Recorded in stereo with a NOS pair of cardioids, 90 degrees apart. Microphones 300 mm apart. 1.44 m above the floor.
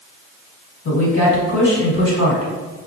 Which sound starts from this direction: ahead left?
A woman speaking, at 0.8 s.